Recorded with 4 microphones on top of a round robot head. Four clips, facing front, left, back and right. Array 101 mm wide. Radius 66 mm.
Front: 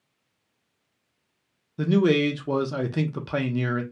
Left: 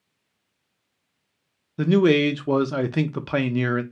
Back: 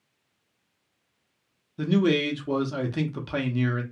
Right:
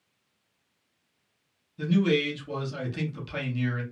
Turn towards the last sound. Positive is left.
turn(degrees=75)